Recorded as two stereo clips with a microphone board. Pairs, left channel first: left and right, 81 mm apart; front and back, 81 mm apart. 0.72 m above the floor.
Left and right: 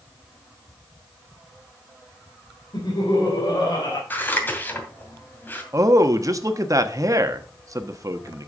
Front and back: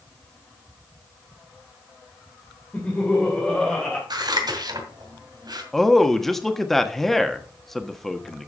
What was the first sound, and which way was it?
Laughter, 65° left.